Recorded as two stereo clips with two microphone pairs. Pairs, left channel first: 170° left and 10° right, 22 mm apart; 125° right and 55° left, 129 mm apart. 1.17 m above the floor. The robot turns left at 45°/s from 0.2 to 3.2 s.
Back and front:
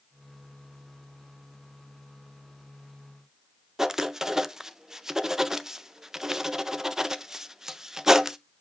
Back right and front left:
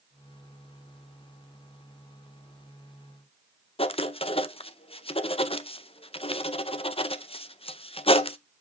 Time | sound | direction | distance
3.8 | writing | 85° right | 0.5 m